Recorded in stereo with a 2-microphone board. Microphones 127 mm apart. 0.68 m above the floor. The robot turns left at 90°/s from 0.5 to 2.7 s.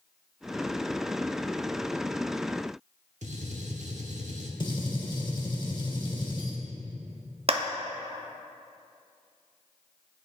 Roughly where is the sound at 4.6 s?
Left.